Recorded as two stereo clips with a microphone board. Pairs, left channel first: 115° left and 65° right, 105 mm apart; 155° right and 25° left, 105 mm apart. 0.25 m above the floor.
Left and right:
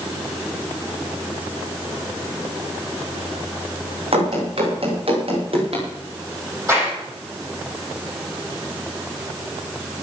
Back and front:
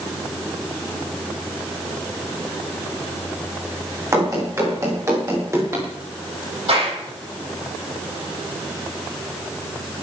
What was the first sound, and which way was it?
Running footsteps, 40° right.